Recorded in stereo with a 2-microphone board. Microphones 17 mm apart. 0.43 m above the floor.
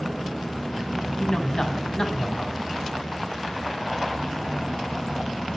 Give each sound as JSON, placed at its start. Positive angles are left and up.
{"t": 1.2, "sound": "a man speaking", "side_deg": 35, "distance_m": 2.0}